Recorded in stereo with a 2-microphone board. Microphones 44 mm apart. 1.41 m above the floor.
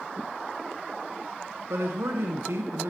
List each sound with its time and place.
1.7 s a man speaking: 85° right, 0.9 m